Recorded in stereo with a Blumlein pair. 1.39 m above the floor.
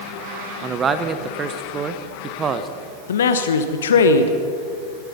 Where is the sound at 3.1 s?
65° left, 1.0 m.